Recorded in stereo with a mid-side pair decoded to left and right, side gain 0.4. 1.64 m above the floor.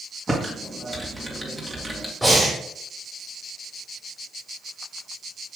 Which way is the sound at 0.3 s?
15° right.